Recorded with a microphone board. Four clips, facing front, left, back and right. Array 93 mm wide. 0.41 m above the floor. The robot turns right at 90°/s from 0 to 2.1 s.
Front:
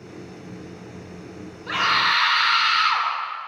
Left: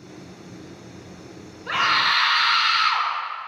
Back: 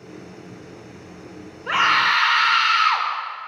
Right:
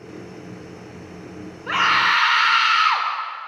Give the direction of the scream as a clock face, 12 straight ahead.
5 o'clock.